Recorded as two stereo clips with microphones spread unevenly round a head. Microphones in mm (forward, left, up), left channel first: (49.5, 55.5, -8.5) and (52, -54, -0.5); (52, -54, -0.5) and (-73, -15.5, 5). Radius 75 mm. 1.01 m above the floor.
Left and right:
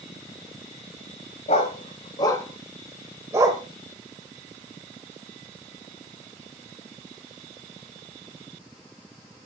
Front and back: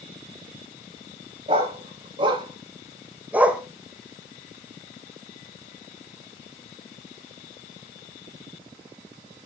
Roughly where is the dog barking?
Behind left.